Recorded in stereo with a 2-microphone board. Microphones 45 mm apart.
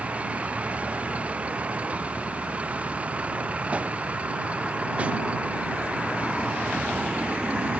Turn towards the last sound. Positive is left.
turn(degrees=-25)  # may be behind; listen again after turning